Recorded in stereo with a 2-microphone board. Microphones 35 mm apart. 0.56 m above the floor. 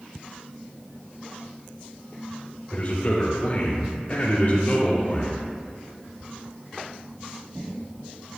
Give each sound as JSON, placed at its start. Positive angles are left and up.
{"t": 2.7, "sound": "a man speaking", "side_deg": 40, "distance_m": 2.0}